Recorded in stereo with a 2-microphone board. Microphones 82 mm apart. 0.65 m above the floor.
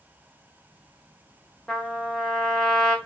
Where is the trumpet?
5° left (ahead or behind), 2 m.